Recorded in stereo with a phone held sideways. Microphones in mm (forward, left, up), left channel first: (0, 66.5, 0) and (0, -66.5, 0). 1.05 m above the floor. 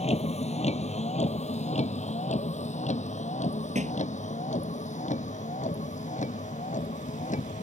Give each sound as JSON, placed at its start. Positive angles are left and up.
{"t": 0.0, "sound": "a vehicle", "side_deg": 55}
{"t": 3.8, "sound": "a thud", "side_deg": -70}